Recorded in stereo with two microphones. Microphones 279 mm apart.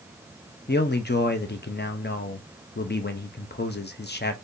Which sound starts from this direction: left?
A man speaking, at 0.7 s.